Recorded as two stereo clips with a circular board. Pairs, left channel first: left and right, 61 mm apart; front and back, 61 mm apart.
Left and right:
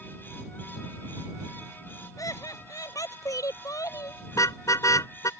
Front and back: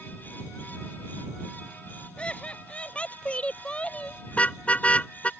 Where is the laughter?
70° left.